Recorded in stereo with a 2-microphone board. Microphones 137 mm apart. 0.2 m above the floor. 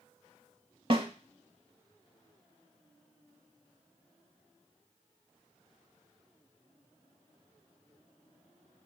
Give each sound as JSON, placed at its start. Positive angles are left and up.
{"t": 0.9, "sound": "a snare drum", "side_deg": -45, "distance_m": 0.5}